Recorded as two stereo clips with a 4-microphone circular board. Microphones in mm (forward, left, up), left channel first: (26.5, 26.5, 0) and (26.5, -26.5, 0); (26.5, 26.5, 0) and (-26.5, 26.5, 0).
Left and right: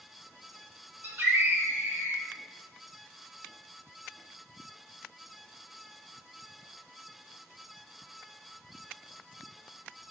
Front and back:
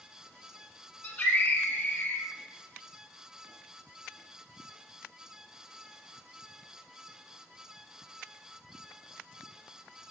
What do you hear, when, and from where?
1.0 s a scream: 55° right, 2 m